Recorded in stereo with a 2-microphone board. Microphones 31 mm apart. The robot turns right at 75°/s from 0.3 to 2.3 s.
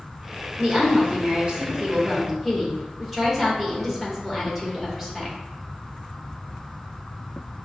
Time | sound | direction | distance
0.6 | a woman speaking | 135° right | 1.2 m